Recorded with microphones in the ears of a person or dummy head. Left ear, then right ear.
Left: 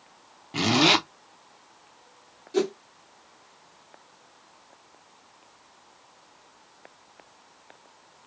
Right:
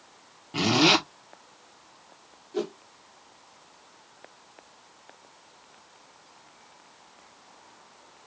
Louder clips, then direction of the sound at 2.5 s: Left 6 dB; 70° left (ahead or behind).